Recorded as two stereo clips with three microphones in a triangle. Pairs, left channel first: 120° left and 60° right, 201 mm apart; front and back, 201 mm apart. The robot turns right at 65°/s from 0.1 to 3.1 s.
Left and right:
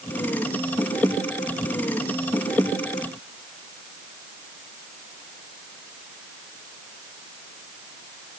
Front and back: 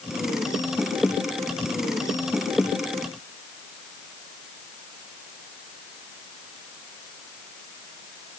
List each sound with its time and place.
Only background noise.